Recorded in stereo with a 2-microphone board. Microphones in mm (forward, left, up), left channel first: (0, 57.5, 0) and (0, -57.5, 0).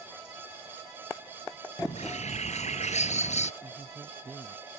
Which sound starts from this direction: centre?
A man speaking, at 3.6 s.